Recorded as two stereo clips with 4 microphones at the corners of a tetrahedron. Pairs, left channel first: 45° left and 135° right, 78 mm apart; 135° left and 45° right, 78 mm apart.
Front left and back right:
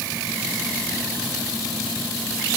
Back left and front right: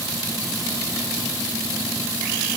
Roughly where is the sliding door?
No sliding door in this recording.